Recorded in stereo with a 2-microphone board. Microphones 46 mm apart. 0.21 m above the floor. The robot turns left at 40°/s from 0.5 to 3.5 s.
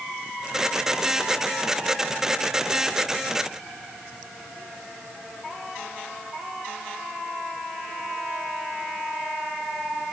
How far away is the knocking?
I don't hear knocking.